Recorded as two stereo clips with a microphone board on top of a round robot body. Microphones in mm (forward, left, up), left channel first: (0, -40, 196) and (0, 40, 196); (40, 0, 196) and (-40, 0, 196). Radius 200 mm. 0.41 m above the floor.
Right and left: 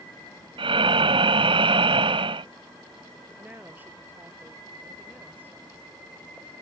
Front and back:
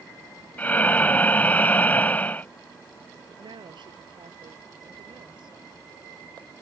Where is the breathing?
70° left.